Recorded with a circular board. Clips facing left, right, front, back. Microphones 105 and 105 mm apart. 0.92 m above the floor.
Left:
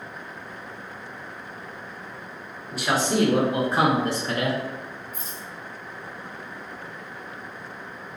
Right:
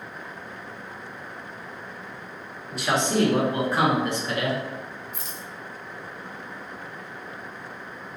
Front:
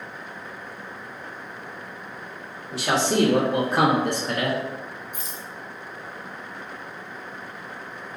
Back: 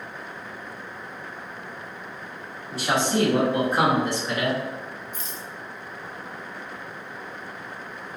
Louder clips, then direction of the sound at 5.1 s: Even, even; 75° right.